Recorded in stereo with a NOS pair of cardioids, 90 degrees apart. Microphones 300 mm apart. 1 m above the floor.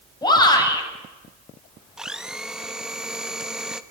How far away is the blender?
About 1.0 m.